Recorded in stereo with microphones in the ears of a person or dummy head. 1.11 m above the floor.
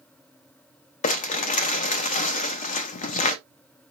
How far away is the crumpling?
About 0.5 m.